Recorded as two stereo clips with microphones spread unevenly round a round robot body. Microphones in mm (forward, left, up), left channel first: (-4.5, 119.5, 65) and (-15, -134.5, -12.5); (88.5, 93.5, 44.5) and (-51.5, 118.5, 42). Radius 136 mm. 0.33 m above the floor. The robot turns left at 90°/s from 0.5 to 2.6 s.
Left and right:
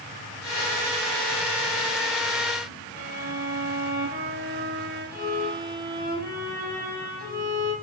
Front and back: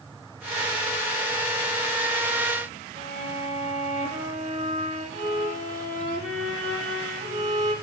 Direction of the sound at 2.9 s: 145° right.